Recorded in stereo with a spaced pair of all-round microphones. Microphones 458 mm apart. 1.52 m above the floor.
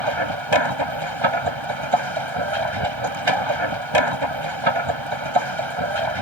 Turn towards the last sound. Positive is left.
turn(degrees=-75)  # may be behind; listen again after turning